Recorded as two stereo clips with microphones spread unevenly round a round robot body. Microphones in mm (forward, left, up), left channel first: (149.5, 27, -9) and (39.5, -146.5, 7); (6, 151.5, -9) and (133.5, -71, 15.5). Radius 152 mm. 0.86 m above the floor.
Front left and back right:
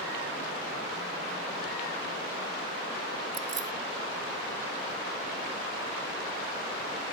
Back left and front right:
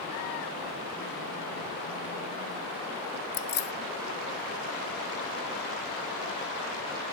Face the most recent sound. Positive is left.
turn(degrees=180)